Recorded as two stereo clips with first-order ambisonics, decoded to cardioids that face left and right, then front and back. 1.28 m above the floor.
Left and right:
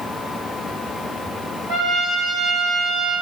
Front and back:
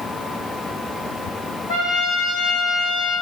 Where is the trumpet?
40° right, 3.5 m.